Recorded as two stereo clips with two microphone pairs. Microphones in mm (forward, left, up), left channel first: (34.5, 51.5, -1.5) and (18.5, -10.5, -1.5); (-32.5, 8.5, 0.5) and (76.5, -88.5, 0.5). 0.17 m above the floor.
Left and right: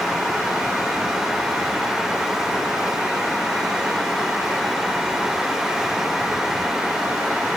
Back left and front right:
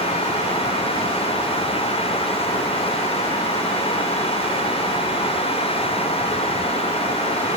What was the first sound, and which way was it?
Only background noise.